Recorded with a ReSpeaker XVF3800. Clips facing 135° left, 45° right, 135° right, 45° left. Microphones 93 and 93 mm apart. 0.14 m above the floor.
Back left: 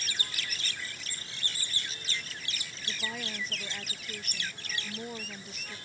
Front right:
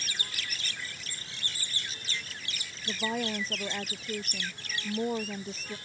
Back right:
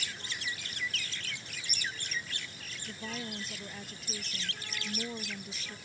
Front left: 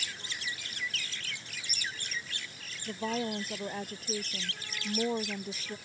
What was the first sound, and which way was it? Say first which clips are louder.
A woman speaking: front right 8 dB, front left 8 dB; 10° left.